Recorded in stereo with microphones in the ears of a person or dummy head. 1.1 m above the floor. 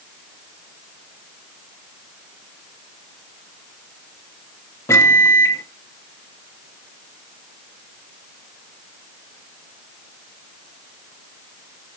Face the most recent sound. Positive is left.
turn(degrees=10)  # may be behind; listen again after turning